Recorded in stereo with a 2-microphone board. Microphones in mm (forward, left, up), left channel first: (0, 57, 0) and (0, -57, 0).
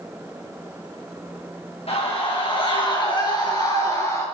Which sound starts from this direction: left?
A scream, at 1.9 s.